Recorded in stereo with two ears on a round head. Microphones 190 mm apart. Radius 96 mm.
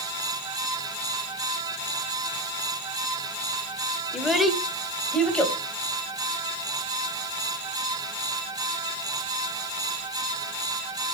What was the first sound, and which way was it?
A child speaking, centre (ahead or behind).